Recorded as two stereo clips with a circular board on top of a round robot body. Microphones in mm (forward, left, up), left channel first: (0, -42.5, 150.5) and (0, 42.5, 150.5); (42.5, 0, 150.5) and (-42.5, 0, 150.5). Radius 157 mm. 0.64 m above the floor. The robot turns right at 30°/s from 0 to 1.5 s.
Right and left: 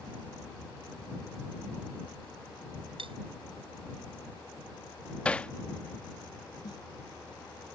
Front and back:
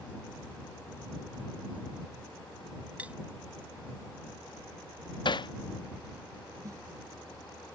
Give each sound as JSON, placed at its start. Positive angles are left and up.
{"t": 3.0, "sound": "cutlery clinking", "azimuth_deg": 105}
{"t": 5.2, "sound": "hammering", "azimuth_deg": -15}
{"t": 6.6, "sound": "a snare drum", "azimuth_deg": -130}